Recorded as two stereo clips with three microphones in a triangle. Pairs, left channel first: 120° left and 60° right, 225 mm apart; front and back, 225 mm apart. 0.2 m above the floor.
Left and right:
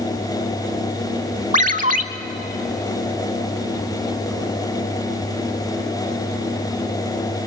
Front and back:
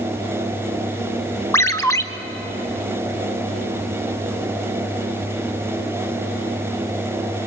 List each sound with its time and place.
1.5 s a ringtone: 70° right, 0.6 m